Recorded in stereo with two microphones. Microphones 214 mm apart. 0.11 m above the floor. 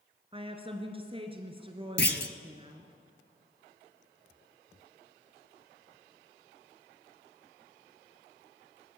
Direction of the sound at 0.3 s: 25° right (ahead or behind).